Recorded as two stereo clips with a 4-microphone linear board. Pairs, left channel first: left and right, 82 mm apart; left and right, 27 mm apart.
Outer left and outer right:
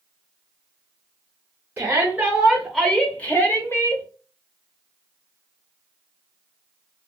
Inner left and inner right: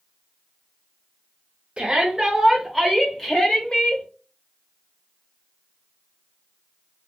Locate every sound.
1.8 s a shout: 30° right (ahead or behind), 0.9 m; by 4.0 s 35° left (ahead or behind), 1.2 m